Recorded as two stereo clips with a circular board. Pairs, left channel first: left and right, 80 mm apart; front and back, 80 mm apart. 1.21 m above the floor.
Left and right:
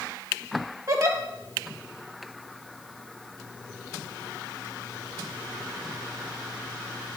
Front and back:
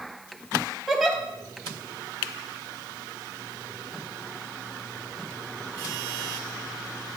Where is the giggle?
90° right, 1.3 m.